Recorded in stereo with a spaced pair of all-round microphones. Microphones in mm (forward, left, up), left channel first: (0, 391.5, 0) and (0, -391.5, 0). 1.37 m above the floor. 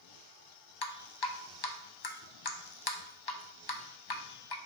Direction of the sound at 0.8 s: 30° left (ahead or behind).